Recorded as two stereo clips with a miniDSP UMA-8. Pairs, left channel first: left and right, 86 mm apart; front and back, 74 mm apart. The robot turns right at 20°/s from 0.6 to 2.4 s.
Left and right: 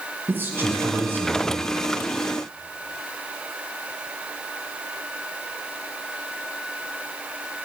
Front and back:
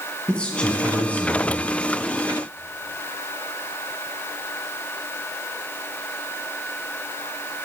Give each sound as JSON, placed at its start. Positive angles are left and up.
{"t": 0.3, "sound": "a man speaking", "azimuth_deg": -60, "distance_m": 1.4}